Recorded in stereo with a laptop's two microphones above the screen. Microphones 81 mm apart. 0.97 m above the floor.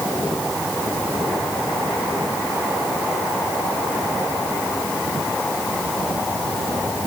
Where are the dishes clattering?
No dishes clattering in this recording.